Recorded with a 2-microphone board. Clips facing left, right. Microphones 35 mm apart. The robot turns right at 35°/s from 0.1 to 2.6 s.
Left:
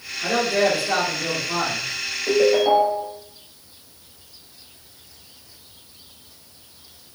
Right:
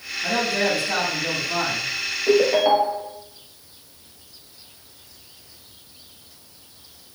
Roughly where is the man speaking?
Left.